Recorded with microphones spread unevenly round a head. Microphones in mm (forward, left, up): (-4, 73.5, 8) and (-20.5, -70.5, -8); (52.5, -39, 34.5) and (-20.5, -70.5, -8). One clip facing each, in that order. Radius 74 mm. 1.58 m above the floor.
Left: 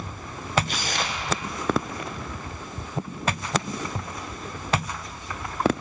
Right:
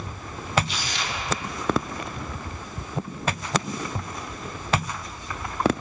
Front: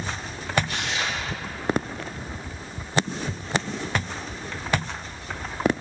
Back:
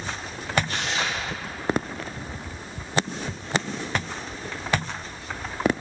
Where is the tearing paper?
130° left, 1.0 m.